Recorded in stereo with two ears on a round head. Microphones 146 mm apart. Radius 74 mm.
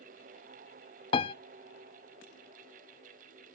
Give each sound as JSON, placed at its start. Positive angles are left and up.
{"t": 1.1, "sound": "a piano", "side_deg": 35, "distance_m": 0.5}